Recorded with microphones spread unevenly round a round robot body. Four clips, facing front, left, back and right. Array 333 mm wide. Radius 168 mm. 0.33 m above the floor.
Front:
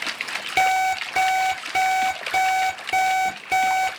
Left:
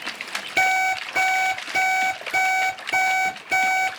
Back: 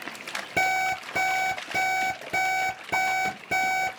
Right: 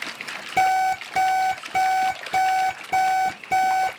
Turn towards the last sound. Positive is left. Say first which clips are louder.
# right 3 dB, front 6 dB
turn(degrees=-155)